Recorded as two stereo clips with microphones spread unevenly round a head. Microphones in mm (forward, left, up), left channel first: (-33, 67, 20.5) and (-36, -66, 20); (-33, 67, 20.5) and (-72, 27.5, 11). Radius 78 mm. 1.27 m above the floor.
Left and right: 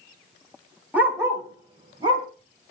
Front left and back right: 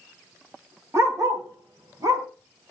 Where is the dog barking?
170° right, 2.5 m; by 2.3 s 145° right, 3 m.